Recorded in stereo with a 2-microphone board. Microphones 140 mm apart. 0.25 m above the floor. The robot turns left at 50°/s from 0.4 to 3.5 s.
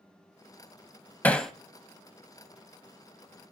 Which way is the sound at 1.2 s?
10° left (ahead or behind).